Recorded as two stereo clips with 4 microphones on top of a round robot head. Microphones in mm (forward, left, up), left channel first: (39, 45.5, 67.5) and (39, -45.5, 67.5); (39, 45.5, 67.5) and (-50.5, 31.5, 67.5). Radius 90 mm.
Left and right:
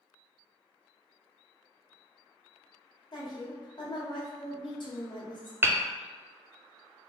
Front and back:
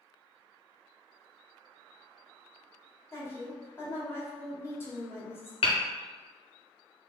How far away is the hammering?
About 0.6 m.